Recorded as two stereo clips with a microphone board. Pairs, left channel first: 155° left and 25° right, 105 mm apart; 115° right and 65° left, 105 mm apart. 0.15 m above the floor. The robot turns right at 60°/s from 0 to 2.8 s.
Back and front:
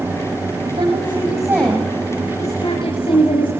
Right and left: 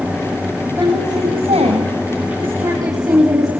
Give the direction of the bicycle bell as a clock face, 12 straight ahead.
No bicycle bell in this recording.